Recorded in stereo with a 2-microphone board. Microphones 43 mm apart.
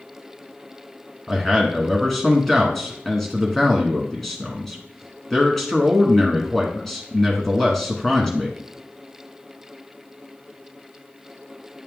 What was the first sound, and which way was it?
A man speaking, 5° left (ahead or behind).